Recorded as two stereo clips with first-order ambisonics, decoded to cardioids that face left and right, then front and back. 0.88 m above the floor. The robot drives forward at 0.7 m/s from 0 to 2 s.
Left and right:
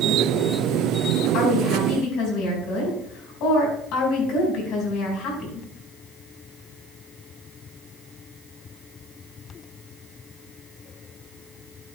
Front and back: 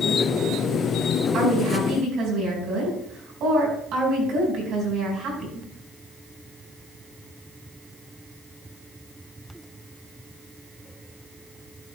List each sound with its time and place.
1.3 s a woman speaking: 125° left, 5 m; by 5.7 s 130° left, 5 m